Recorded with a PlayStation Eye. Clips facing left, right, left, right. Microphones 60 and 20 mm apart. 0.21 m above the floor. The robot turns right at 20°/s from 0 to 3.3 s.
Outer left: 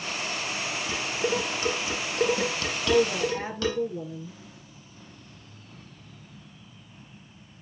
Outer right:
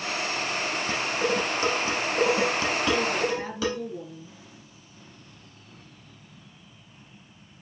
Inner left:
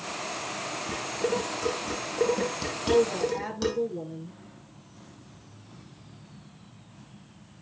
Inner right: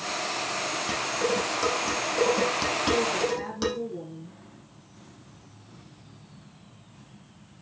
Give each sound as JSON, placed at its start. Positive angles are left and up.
{"t": 0.9, "sound": "dishes clattering", "side_deg": -60, "distance_m": 5.0}
{"t": 2.8, "sound": "a woman speaking", "side_deg": 25, "distance_m": 3.5}